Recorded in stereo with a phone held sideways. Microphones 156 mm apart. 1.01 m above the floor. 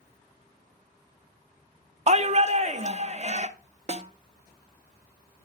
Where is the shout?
45° right (ahead or behind), 0.9 m.